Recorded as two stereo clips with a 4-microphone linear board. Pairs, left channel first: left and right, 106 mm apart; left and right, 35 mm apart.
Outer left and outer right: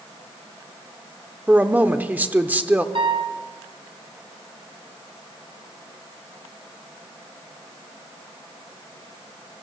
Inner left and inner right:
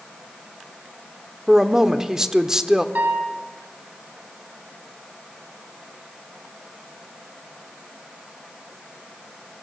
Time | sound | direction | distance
1.5 | a woman speaking | 15° right (ahead or behind) | 0.9 m
3.0 | a piano | 60° right (ahead or behind) | 3 m